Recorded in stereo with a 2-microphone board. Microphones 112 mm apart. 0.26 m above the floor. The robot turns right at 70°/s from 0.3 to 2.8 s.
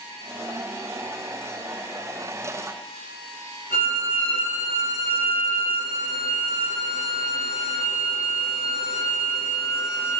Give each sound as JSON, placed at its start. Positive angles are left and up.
{"t": 3.7, "sound": "a violin", "side_deg": 20, "distance_m": 1.2}